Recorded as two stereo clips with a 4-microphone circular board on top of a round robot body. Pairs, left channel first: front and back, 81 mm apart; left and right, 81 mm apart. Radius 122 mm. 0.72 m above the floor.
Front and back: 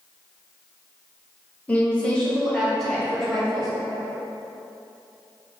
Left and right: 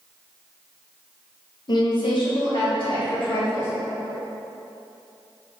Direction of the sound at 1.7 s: 70° left.